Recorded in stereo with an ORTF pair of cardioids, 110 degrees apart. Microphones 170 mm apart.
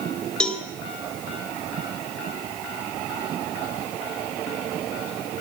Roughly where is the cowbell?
Ahead.